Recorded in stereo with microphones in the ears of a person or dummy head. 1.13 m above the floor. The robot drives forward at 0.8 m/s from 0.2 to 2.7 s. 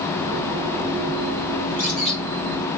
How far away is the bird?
About 1.1 m.